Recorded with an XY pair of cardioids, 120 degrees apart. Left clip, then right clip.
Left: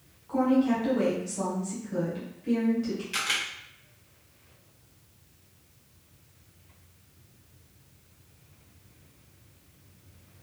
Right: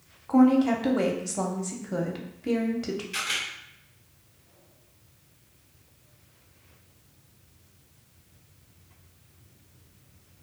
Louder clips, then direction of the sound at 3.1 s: Left 1 dB; 25° left.